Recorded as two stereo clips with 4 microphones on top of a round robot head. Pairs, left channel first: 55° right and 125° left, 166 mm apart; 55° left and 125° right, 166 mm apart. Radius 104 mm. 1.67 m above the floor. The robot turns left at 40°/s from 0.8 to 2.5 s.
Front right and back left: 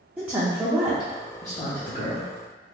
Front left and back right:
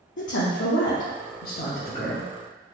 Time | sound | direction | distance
0.2 | a woman speaking | 45° left | 0.7 m